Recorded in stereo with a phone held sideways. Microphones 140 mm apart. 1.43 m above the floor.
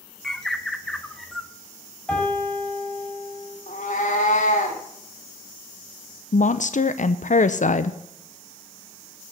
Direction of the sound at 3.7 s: 60° left (ahead or behind).